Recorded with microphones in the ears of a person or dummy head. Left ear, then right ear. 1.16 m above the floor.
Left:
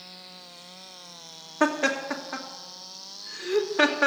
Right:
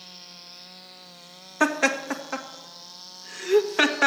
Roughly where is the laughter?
Right.